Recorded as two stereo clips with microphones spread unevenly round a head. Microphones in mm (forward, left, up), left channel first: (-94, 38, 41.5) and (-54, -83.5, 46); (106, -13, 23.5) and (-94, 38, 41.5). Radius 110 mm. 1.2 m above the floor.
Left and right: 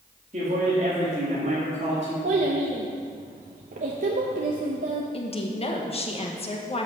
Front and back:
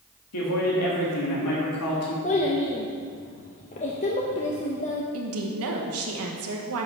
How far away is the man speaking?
About 1.8 m.